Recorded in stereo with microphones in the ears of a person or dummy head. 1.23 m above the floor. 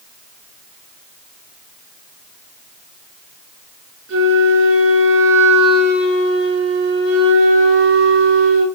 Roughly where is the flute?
Right.